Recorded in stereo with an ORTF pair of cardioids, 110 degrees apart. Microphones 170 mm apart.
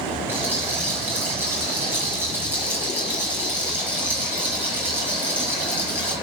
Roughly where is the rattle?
Ahead.